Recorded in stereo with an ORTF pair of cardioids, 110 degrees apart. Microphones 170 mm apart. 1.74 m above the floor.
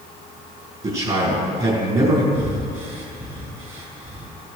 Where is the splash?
I don't hear a splash.